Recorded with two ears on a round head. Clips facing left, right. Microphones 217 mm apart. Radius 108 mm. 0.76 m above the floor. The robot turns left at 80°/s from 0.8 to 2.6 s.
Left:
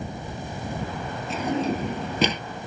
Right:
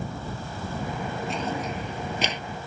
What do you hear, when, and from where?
1.3 s a drawer: straight behind; by 2.4 s 90° left